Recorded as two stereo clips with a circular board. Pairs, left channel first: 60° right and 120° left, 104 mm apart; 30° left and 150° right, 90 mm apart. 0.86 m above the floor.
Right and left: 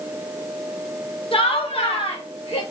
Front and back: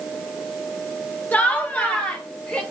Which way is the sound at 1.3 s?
40° right.